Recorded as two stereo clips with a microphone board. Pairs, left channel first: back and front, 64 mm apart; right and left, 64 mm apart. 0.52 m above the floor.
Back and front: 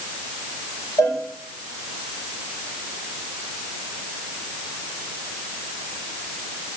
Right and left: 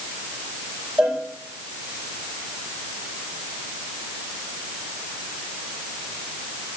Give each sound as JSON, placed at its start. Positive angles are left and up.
{"t": 1.0, "sound": "a cowbell", "azimuth_deg": 170, "distance_m": 8.0}